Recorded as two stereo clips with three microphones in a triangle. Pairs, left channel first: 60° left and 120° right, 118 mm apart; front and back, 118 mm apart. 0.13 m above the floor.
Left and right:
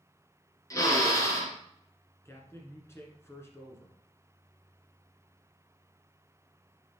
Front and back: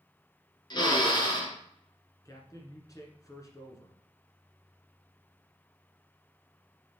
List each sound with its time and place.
0.7 s a drill: 15° left, 1.8 m
2.2 s a man speaking: 15° left, 1.4 m